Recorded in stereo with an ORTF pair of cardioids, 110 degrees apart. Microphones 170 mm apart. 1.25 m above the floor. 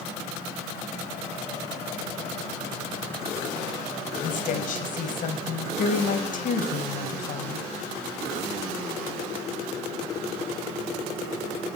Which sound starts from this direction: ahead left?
A woman speaking, at 4.2 s.